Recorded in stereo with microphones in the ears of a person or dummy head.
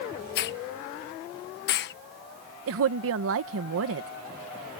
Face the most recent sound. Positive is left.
turn(degrees=-70)  # may be behind; listen again after turning